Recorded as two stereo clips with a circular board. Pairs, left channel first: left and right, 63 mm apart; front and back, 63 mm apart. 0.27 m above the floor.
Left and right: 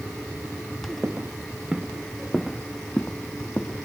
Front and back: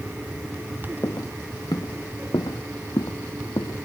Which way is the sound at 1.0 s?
30° right.